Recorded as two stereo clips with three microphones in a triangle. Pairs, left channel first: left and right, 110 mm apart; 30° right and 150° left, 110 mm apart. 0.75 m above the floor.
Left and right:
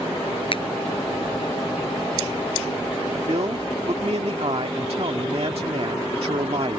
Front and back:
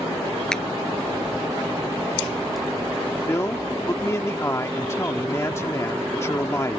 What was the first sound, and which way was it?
A finger snap, 55° left.